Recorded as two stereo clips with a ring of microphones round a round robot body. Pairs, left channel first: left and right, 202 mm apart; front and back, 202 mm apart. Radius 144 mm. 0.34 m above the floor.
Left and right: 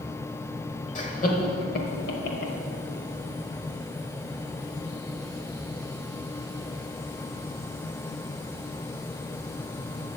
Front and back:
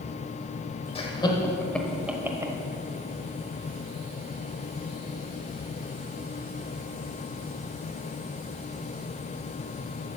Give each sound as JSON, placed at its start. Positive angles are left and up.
{"t": 0.9, "sound": "laughter", "azimuth_deg": 50, "distance_m": 1.4}